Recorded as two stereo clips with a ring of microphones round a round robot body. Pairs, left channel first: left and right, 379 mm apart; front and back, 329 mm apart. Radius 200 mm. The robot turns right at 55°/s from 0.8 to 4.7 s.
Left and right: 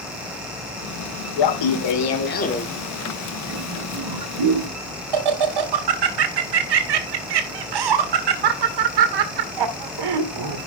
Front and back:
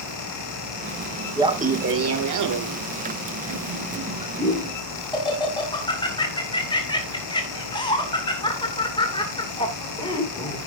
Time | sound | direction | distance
1.4 | laughter | 100° left | 2 m